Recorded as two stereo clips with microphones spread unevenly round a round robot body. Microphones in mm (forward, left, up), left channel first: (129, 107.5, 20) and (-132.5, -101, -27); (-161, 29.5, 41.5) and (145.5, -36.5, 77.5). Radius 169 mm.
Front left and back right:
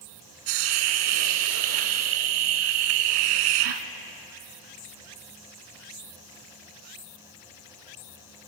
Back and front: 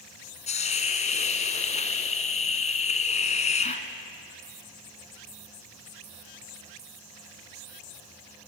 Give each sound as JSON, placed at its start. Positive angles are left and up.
{"t": 0.5, "sound": "a hiss", "azimuth_deg": -120, "distance_m": 1.3}